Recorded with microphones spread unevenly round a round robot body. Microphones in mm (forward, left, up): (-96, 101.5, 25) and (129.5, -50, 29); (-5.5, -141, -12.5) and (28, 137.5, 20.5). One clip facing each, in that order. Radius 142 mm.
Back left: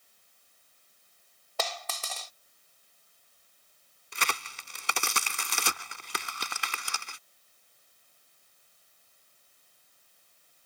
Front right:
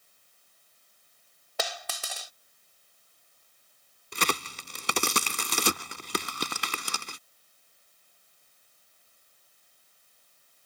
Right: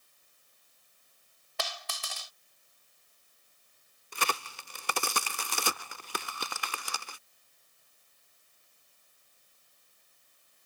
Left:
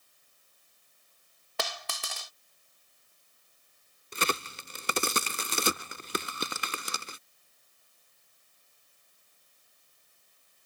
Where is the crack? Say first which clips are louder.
Front right 7 dB, left 4 dB; 15° left.